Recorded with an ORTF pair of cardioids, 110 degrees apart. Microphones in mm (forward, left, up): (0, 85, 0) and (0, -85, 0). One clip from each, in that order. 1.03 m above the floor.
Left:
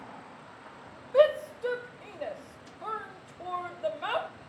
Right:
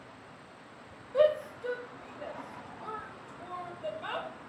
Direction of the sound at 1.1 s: 35° left.